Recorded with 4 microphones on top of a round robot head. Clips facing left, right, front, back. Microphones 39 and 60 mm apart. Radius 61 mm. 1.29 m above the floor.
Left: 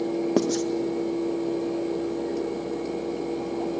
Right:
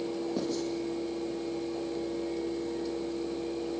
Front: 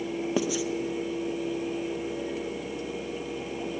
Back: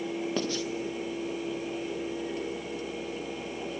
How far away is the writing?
About 1.9 m.